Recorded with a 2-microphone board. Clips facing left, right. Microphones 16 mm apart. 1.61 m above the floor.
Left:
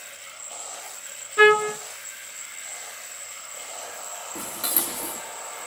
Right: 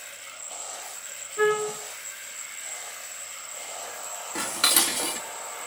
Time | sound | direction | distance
1.4 | a trumpet | 65° left (ahead or behind) | 1.4 m
4.3 | dishes clattering | 50° right (ahead or behind) | 2.5 m